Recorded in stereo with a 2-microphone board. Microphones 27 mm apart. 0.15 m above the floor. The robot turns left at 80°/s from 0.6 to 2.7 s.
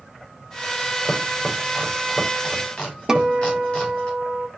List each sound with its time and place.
1.0 s chopping: 75° right (ahead or behind), 7.5 m; by 4.1 s 30° left (ahead or behind), 7.5 m
3.1 s a guitar: 20° right (ahead or behind), 1.1 m